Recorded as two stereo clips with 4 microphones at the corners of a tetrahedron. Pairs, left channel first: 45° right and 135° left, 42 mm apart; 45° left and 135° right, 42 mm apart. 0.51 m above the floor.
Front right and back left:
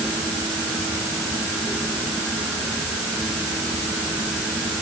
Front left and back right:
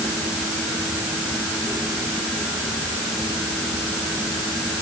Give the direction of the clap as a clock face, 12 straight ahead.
I don't hear a clap.